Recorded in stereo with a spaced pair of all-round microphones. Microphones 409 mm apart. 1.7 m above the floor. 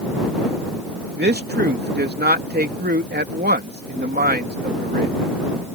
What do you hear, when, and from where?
1.2 s a man speaking: 25° right (ahead or behind)